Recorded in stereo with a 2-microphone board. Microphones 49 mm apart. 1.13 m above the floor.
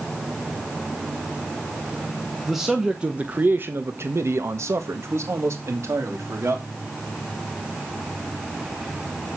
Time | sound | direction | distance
2.5 | a man speaking | centre (ahead or behind) | 1.3 m